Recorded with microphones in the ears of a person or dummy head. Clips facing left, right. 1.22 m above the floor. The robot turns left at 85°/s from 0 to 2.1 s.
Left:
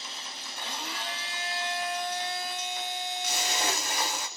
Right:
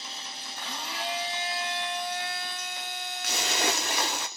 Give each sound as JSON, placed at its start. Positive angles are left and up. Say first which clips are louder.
{"t": 0.6, "sound": "a blender", "louder": "right 1 dB", "azimuth_deg": 35, "distance_m": 1.8}
{"t": 3.2, "sound": "a splash", "louder": "right 4 dB", "side_deg": -50, "distance_m": 0.6}